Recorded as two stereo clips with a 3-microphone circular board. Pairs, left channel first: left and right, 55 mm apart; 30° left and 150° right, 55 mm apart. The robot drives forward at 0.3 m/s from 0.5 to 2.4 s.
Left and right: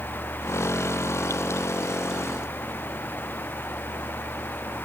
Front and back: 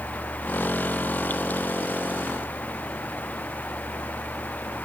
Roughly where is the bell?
I don't hear a bell.